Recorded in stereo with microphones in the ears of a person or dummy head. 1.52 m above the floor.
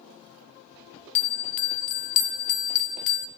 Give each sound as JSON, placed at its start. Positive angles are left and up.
{"t": 1.1, "sound": "a bell", "side_deg": 45, "distance_m": 0.7}